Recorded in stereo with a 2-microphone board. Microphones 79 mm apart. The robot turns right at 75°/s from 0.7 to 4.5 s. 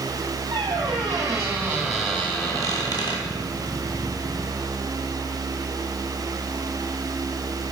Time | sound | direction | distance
0.5 | a squeak | 95° right | 1.4 m